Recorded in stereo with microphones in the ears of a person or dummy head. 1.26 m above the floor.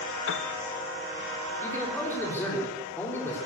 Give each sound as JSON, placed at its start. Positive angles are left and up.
{"t": 0.3, "sound": "a piano", "side_deg": 70, "distance_m": 0.6}
{"t": 1.6, "sound": "a man speaking", "side_deg": 15, "distance_m": 3.5}